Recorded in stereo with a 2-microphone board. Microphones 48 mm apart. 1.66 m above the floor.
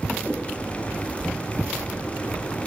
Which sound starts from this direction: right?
A whoosh, at 0.2 s.